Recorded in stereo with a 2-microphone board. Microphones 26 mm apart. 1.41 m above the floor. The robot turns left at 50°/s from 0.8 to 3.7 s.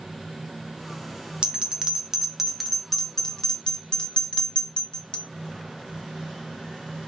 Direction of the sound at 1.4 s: 40° right (ahead or behind).